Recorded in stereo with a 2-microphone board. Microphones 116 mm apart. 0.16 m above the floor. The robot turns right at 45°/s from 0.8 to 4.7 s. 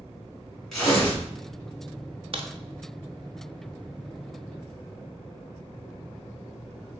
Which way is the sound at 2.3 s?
55° right (ahead or behind).